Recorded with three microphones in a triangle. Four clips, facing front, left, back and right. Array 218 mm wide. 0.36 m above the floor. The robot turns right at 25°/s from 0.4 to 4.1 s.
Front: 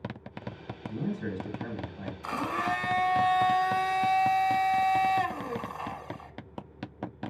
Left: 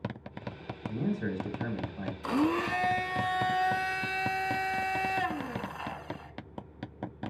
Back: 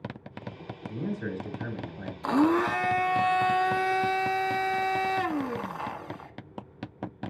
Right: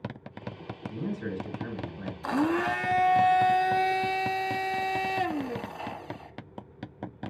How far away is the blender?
About 0.5 m.